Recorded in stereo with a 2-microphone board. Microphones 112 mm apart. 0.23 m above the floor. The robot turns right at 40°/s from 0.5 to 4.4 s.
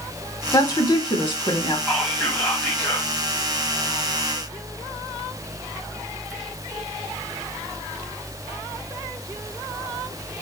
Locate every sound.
0.5 s a woman speaking: 55° left, 1.1 m; by 1.8 s 105° left, 1.1 m
1.9 s whispering: centre (ahead or behind), 1.4 m; by 3.1 s 20° left (ahead or behind), 1.4 m